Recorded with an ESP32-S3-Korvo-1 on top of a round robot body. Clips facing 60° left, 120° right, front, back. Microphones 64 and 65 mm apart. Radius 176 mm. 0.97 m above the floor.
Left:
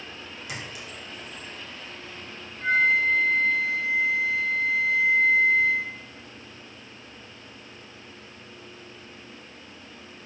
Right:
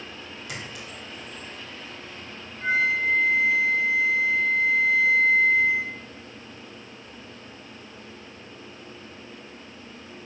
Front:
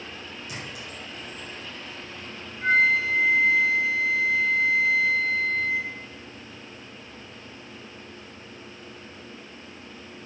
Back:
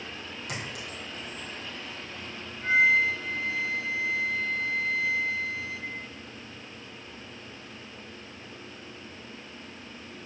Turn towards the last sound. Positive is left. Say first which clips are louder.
# left 2 dB, front 1 dB
turn(degrees=-40)